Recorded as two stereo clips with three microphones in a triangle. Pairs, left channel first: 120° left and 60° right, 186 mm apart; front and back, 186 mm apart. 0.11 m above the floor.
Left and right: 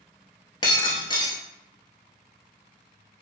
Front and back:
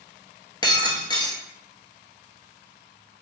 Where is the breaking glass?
60° left, 0.8 m.